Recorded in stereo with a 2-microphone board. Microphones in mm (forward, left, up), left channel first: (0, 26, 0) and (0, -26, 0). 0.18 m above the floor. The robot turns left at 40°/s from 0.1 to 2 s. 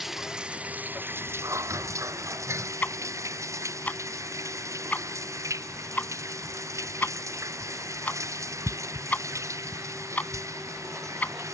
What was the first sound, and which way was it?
Running water, 5° right.